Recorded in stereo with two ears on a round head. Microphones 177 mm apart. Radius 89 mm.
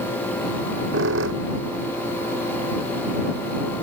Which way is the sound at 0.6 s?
70° right (ahead or behind).